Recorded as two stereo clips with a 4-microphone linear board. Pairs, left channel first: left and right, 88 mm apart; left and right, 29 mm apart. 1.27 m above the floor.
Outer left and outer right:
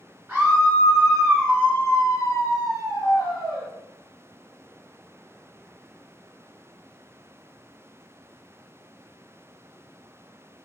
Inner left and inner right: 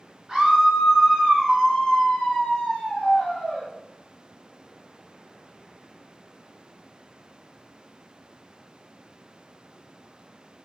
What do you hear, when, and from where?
0.3 s a scream: 20° right (ahead or behind), 1.2 m; by 3.7 s 40° left (ahead or behind), 1.5 m